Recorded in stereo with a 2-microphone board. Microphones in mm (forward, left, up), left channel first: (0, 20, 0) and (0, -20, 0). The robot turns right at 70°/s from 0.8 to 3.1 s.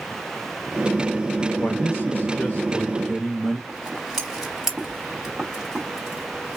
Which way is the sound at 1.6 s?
65° left.